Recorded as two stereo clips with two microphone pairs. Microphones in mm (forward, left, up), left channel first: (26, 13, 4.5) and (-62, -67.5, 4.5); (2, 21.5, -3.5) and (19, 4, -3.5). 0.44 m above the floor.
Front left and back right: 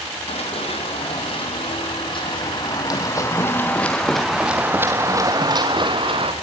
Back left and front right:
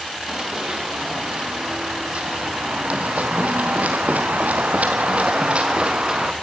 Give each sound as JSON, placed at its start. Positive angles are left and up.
{"t": 0.3, "sound": "running footsteps", "azimuth_deg": 10, "distance_m": 6.0}